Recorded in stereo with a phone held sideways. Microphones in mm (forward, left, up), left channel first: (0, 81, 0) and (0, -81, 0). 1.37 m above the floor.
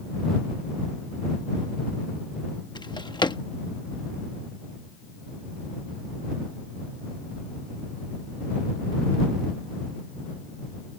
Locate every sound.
2.8 s a drawer: 25° left (ahead or behind)